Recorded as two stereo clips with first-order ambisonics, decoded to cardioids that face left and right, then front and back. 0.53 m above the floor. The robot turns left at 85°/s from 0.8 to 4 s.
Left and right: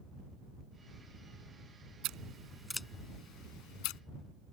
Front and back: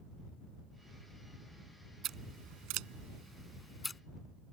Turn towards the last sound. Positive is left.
turn(degrees=70)